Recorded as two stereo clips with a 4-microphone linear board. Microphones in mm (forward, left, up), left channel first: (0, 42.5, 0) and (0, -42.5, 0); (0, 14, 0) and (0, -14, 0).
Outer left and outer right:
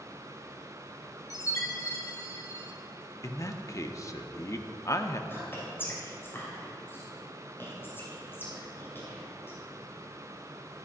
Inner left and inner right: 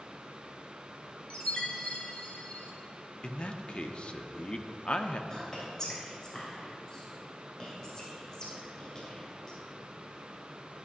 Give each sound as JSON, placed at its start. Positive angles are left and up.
{"t": 1.3, "sound": "a chime", "side_deg": 40, "distance_m": 1.4}
{"t": 3.2, "sound": "a man speaking", "side_deg": 40, "distance_m": 0.8}
{"t": 5.3, "sound": "whispering", "side_deg": 25, "distance_m": 3.0}